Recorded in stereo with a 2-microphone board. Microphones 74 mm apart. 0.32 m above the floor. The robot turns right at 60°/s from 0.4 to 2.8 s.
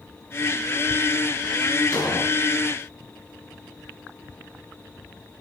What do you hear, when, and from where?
1.9 s an explosion: 50° left (ahead or behind), 3 m; by 2.3 s 65° left (ahead or behind), 3 m